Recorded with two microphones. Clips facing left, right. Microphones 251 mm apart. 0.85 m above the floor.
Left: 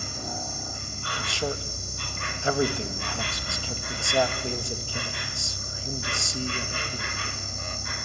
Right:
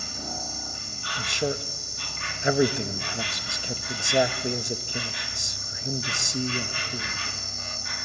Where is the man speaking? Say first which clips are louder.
Right 3 dB; 20° right (ahead or behind), 0.9 m.